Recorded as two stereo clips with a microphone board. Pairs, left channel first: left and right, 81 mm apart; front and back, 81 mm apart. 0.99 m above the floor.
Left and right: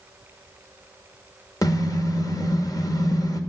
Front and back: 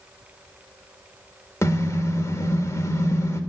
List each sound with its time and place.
1.6 s a car horn: 50° left, 2 m